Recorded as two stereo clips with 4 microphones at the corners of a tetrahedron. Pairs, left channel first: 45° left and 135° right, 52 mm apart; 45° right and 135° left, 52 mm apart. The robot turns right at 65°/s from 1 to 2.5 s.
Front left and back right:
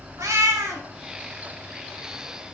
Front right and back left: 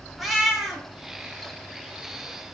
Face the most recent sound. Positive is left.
turn(degrees=-40)